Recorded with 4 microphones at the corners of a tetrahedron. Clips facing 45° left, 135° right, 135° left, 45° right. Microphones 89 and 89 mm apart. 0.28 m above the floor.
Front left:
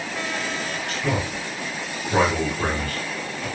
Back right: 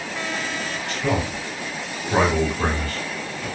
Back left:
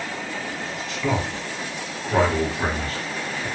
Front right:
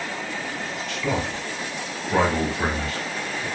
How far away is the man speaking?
About 1.8 m.